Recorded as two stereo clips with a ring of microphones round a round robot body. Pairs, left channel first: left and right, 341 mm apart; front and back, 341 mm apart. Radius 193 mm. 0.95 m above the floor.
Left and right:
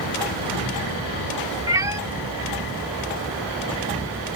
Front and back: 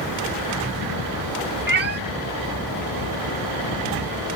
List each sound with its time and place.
1.7 s a cat meowing: 160° right